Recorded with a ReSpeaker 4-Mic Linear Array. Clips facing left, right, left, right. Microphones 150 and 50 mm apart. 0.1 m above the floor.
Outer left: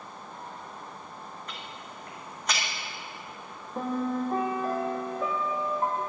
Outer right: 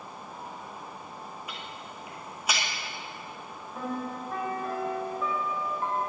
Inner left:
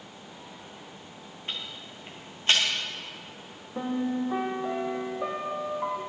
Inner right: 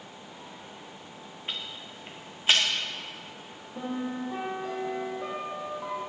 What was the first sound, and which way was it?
Ticking, 5° right (ahead or behind).